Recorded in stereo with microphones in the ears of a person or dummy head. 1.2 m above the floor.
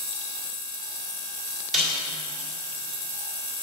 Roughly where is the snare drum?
Centre.